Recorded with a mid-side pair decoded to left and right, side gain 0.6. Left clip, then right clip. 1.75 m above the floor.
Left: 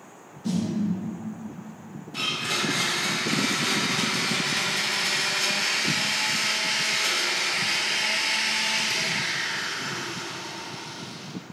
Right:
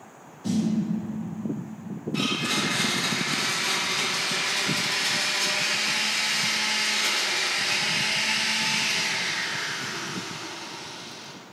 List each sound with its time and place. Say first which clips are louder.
0.4 s a snare drum: right 2 dB; 10° right, 1.6 m
2.1 s a blender: even; straight ahead, 1.1 m